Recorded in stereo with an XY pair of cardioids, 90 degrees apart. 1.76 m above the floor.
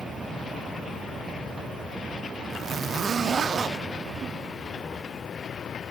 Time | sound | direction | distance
2.5 | a zipper | 55° right | 0.8 m